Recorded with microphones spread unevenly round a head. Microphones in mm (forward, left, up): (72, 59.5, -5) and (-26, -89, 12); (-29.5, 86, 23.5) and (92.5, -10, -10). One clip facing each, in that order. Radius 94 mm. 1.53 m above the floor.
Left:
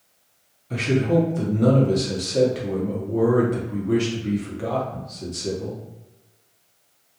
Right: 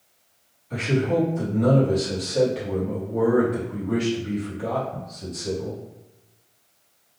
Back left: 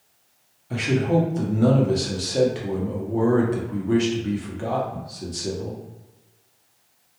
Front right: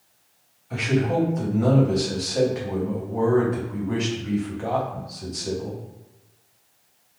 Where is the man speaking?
100° left, 0.9 m.